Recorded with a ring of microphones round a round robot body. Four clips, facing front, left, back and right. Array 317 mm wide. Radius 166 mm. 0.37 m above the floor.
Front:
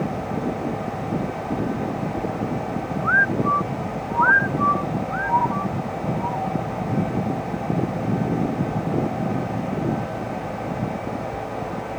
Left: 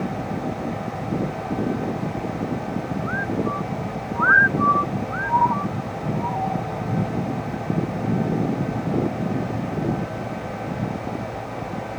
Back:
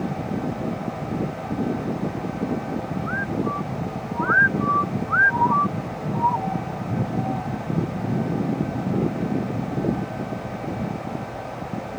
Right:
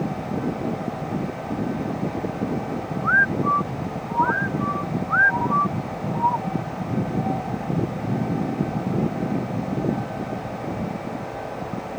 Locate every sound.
Only background noise.